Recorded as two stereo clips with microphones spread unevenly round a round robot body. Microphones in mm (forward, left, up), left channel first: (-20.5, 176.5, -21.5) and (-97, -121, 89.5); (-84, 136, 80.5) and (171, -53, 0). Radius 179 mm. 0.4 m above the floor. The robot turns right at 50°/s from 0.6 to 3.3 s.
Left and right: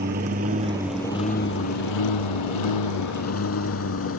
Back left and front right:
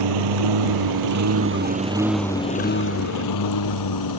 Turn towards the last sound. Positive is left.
turn(degrees=125)